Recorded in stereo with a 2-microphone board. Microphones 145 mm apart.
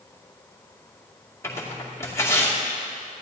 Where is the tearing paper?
20° left (ahead or behind), 2.5 m.